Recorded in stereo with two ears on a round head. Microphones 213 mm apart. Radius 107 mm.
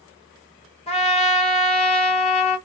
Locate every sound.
0.9 s a trumpet: 25° left (ahead or behind), 1.6 m